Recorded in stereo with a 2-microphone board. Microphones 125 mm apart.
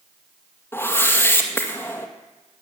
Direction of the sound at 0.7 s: 20° left (ahead or behind).